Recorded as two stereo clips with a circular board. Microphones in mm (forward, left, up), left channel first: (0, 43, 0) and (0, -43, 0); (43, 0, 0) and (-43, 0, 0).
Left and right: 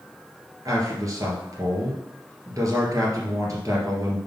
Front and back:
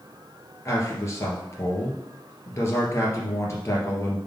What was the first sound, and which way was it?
A man speaking, 50° right.